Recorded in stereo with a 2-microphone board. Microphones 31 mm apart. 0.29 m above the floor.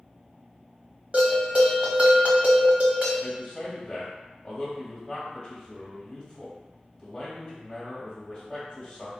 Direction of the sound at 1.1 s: 45° right (ahead or behind).